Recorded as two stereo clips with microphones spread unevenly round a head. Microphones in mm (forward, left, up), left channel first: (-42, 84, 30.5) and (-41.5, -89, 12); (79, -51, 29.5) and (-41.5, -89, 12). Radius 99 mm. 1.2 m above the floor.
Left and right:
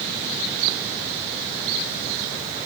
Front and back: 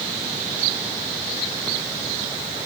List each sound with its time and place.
Only background noise.